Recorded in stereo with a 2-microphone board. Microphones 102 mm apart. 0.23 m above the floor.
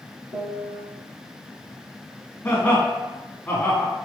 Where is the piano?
70° right (ahead or behind), 0.9 m.